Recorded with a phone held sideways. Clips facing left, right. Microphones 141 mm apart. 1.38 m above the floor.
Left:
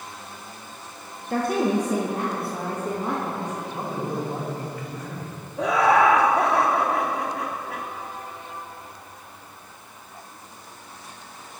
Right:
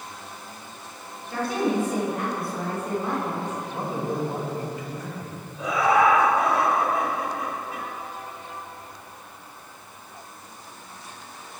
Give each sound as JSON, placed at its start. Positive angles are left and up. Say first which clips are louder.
{"t": 1.3, "sound": "a woman speaking", "louder": "left 2 dB", "side_deg": 55, "distance_m": 1.0}
{"t": 3.7, "sound": "a man speaking", "louder": "right 2 dB", "side_deg": -20, "distance_m": 2.5}
{"t": 5.6, "sound": "laughter", "louder": "left 2 dB", "side_deg": 70, "distance_m": 1.1}